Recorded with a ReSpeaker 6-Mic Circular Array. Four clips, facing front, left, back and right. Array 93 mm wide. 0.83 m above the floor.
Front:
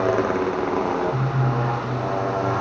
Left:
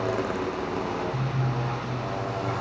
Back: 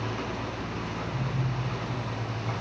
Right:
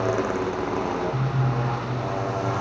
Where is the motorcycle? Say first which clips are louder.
Right 3 dB, front 13 dB; 10° right.